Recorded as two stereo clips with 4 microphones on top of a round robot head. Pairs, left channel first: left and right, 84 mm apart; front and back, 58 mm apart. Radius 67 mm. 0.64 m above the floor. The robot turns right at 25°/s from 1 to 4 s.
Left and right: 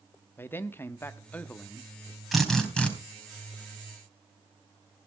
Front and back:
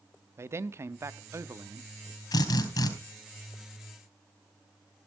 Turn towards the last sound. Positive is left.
turn(degrees=40)